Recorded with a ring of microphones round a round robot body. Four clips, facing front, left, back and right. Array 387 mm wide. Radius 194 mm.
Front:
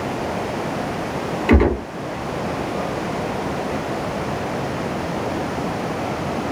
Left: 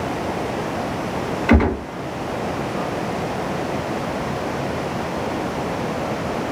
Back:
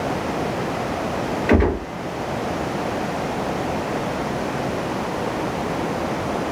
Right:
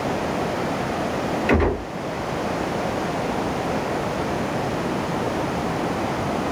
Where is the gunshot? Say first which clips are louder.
Left 4 dB, front 2 dB; 20° left, 2.5 m.